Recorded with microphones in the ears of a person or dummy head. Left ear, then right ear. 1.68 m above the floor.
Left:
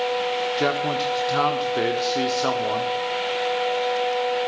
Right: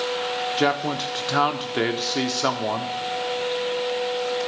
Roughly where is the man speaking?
Centre.